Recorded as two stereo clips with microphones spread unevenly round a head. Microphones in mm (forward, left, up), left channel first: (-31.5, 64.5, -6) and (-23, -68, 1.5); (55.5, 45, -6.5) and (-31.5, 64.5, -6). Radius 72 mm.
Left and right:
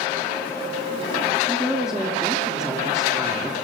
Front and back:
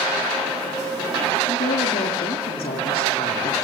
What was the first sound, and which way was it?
A woman speaking, straight ahead.